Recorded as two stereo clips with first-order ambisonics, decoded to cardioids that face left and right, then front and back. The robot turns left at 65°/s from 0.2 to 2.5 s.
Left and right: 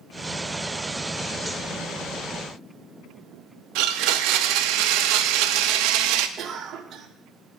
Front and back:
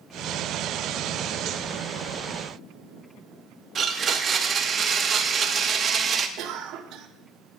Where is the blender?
115° right, 0.5 m.